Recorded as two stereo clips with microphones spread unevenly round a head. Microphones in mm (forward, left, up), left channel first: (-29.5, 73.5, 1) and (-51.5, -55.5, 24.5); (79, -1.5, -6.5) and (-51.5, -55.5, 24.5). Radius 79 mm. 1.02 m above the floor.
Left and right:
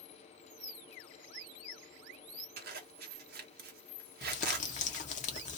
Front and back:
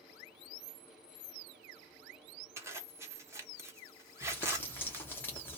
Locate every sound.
2.6 s a zipper: 80° right, 0.9 m
4.2 s crumpling: 110° left, 0.7 m